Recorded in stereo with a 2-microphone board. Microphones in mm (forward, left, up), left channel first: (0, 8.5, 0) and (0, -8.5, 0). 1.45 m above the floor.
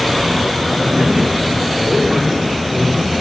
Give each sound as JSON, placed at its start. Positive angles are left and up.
{"t": 0.8, "sound": "a man speaking", "side_deg": -85, "distance_m": 3.0}